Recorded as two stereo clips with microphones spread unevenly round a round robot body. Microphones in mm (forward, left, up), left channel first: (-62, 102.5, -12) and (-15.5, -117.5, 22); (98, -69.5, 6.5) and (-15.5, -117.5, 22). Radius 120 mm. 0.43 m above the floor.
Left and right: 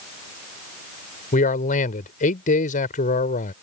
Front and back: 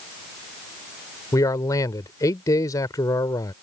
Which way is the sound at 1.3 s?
70° left.